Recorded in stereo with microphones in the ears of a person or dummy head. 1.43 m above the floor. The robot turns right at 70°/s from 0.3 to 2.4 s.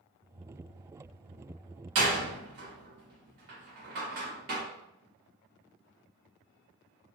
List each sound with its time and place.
1.9 s a door slam: 65° right (ahead or behind), 1.3 m; by 4.6 s 55° right (ahead or behind), 1.3 m